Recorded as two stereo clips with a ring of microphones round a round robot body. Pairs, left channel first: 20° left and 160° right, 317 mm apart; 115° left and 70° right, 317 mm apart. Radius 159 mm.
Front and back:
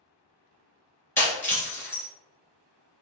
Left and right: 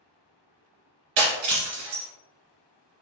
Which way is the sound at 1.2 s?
60° right.